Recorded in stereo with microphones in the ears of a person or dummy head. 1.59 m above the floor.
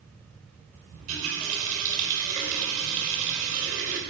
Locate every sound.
0.9 s a running tap: 45° right (ahead or behind), 4.5 m